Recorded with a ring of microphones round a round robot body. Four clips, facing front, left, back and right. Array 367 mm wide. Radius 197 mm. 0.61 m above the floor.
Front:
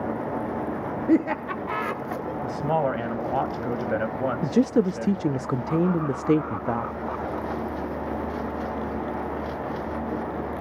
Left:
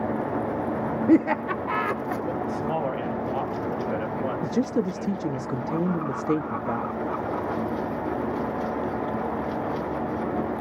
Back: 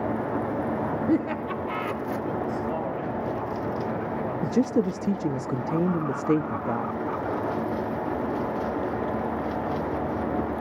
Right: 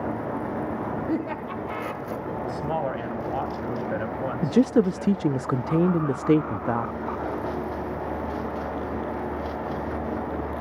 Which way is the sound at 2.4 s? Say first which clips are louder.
Right 3 dB, front 4 dB; 10° right.